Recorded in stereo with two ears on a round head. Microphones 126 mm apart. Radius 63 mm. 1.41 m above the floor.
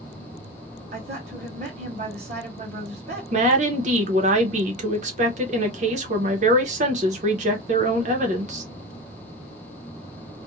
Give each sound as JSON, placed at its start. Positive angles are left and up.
{"t": 0.9, "sound": "a woman speaking", "side_deg": -60, "distance_m": 1.2}
{"t": 3.3, "sound": "a woman speaking", "side_deg": -55, "distance_m": 0.8}